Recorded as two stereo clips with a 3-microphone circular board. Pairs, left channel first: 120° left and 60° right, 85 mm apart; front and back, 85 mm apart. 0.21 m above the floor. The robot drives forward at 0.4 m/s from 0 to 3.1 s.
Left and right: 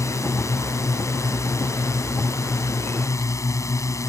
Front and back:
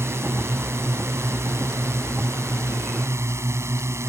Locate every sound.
0.0 s a drone: 140° left; by 4.1 s 145° left